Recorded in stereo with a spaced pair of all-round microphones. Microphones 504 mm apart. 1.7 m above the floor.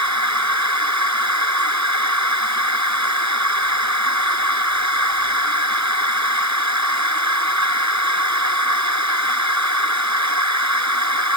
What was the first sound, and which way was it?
A machine running, 35° right (ahead or behind).